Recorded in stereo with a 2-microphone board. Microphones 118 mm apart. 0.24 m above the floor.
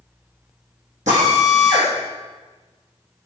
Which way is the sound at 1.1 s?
85° right.